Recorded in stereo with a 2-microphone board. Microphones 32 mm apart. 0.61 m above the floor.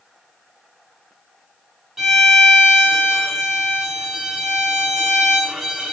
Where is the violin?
10° right (ahead or behind), 2 m.